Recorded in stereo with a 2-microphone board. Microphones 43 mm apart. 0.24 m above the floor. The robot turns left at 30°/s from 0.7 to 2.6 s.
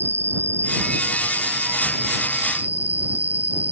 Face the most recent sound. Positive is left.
turn(degrees=-140)